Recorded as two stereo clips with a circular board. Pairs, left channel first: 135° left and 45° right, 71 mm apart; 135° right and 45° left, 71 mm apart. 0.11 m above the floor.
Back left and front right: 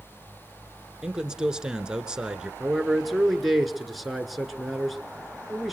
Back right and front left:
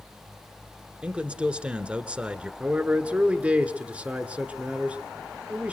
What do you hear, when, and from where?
1.0 s a man speaking: 10° left, 1.1 m
2.6 s a man speaking: 40° left, 1.3 m